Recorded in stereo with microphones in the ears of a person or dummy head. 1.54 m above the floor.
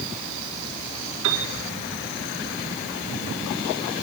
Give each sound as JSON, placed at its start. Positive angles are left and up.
{"t": 1.2, "sound": "a piano", "side_deg": -85, "distance_m": 4.0}